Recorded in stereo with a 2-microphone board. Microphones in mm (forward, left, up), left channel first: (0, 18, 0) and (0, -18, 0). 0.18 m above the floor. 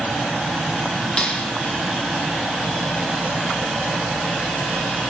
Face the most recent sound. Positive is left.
turn(degrees=30)  # may be behind; listen again after turning